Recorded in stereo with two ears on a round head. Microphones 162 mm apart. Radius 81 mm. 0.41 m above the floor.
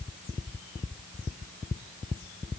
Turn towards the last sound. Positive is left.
No sound to turn to.